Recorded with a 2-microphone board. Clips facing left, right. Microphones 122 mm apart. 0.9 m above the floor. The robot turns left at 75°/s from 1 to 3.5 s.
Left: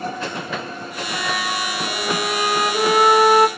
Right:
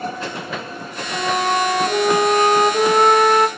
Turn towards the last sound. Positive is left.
turn(degrees=150)